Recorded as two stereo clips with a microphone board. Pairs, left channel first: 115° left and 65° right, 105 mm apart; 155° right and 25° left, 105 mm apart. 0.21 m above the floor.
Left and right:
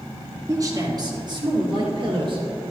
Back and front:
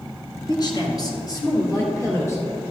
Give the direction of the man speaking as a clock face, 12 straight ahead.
4 o'clock.